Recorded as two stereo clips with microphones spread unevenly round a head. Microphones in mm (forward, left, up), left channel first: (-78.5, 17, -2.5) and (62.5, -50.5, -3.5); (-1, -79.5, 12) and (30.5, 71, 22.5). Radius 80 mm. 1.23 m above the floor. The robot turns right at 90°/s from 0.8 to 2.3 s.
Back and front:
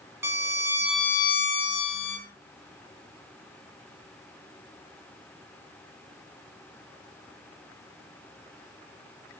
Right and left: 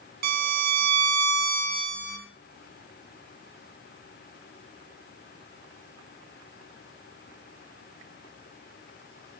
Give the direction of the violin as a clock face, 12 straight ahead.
10 o'clock.